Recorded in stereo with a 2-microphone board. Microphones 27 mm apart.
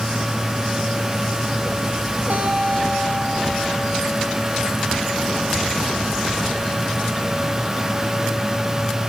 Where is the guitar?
85° right, 9 m.